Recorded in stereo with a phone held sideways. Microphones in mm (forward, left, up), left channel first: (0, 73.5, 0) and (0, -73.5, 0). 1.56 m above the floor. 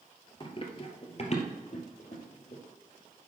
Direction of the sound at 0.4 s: 35° left (ahead or behind).